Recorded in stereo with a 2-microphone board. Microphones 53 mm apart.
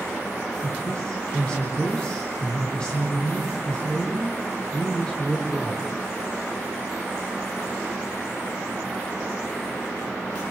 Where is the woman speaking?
20° left (ahead or behind), 5.5 m.